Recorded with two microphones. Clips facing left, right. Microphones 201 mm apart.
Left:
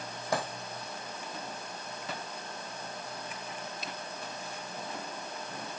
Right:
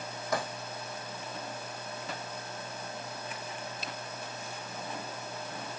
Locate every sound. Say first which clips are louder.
0.3 s a dropped coin: left 1 dB; 30° left (ahead or behind), 3.5 m